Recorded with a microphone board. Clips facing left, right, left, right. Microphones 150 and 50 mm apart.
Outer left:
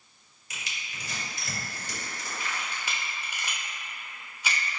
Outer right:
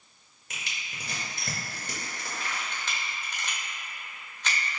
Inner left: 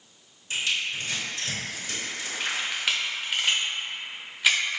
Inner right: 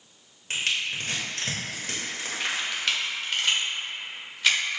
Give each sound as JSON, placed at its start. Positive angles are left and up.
{"t": 0.5, "sound": "crushing", "side_deg": -55, "distance_m": 1.3}
{"t": 2.4, "sound": "a camera shutter", "side_deg": 10, "distance_m": 0.9}